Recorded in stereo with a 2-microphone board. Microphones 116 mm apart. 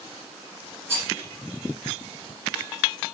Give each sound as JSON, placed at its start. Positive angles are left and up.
{"t": 0.9, "sound": "a rattle", "side_deg": -25, "distance_m": 1.4}